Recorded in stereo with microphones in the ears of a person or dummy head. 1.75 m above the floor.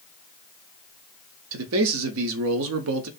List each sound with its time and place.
1.5 s a man speaking: 75° right (ahead or behind), 0.6 m